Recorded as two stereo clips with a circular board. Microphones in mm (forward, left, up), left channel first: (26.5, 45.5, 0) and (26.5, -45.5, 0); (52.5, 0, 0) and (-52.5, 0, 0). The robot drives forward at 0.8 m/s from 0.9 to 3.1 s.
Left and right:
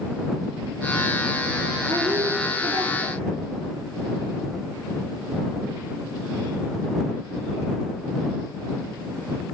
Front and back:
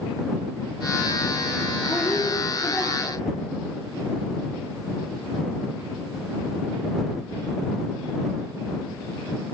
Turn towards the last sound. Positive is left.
turn(degrees=-65)